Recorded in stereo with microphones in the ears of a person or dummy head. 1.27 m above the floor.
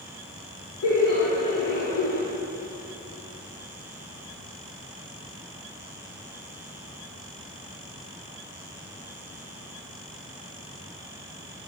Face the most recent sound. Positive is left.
turn(degrees=50)  # may be behind; listen again after turning